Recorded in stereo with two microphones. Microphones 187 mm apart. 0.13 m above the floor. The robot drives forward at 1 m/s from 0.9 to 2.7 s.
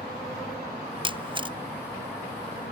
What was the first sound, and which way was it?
A camera shutter, 30° right (ahead or behind).